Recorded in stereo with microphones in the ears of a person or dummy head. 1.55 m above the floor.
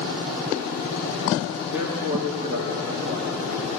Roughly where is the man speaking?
Centre.